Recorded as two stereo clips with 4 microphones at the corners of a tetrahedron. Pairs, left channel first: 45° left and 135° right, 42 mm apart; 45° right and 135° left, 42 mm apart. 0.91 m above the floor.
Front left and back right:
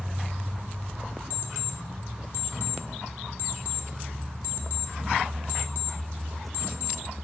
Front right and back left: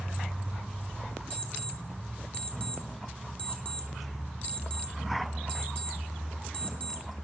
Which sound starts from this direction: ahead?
An alarm clock, at 1.3 s.